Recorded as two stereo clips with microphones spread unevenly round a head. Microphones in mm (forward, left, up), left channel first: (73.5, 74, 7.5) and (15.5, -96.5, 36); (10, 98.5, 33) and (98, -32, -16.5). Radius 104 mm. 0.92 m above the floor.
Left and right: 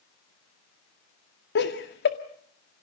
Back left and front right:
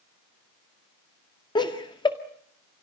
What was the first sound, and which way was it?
Laughter, 55° left.